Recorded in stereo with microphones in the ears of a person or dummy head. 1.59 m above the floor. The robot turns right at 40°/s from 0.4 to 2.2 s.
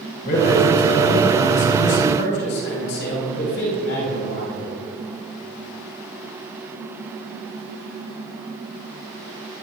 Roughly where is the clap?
No clap in this recording.